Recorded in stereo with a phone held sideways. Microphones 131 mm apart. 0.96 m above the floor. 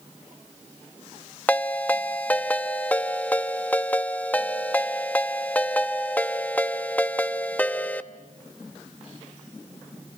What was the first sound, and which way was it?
A ringtone, 10° left (ahead or behind).